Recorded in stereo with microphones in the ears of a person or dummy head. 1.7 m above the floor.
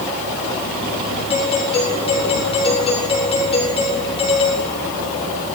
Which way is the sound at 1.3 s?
30° left (ahead or behind).